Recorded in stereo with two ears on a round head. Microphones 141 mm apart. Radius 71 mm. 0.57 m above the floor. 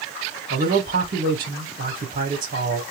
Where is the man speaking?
55° right (ahead or behind), 1.9 m.